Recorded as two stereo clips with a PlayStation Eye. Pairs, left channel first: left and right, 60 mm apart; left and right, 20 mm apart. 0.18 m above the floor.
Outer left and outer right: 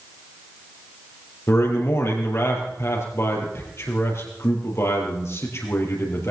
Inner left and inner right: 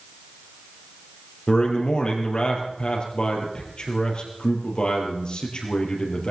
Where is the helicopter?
I don't hear a helicopter.